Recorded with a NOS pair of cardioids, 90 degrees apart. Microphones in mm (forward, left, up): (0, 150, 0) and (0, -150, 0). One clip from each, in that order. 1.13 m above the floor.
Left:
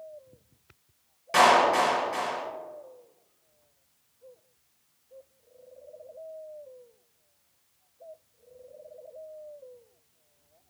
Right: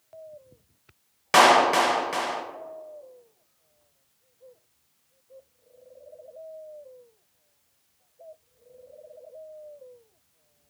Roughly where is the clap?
Ahead right.